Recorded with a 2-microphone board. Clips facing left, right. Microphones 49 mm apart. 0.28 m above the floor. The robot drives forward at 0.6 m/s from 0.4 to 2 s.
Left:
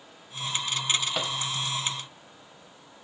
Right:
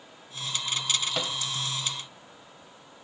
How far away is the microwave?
About 1.1 m.